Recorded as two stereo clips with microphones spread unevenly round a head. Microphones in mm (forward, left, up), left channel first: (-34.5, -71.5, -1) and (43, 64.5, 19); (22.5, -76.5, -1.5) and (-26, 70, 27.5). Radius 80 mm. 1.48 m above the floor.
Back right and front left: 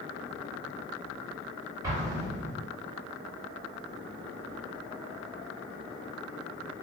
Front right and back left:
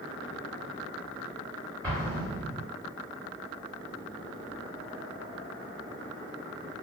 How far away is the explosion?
About 1.2 m.